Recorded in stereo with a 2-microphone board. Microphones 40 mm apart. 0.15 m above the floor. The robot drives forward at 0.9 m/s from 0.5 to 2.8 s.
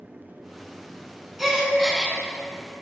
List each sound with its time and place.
1.4 s a gasp: 5° right (ahead or behind), 0.8 m